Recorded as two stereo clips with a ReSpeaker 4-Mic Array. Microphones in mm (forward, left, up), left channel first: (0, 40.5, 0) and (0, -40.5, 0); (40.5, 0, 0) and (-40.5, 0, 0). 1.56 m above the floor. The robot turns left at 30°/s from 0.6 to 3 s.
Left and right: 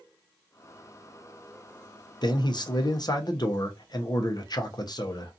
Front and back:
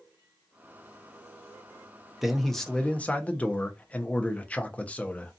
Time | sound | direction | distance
2.2 | a man speaking | 95° left | 0.7 m